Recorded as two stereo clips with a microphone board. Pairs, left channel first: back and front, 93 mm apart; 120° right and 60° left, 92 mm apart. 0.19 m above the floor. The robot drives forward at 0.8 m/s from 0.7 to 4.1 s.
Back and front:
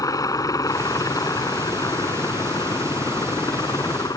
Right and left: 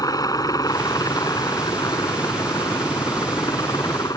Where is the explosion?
No explosion in this recording.